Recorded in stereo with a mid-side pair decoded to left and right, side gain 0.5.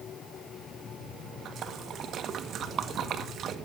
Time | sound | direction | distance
1.4 | a splash | 60° right | 1.6 m